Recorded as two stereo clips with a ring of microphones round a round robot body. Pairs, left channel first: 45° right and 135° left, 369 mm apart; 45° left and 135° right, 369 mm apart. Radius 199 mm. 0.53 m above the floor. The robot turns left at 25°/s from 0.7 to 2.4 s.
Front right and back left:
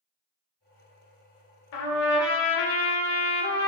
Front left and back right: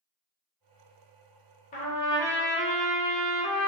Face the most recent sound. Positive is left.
turn(degrees=-45)